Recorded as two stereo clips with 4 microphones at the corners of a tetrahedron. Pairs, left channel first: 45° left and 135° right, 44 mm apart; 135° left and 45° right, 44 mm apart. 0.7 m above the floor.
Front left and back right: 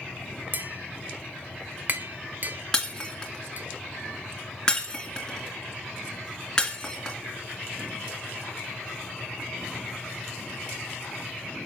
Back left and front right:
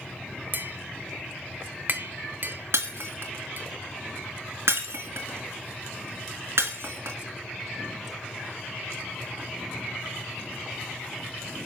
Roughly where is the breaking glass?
Ahead right.